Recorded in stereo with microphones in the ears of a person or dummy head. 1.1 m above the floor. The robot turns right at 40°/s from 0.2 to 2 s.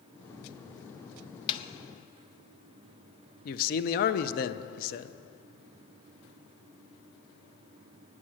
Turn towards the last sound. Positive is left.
turn(degrees=50)  # may be behind; listen again after turning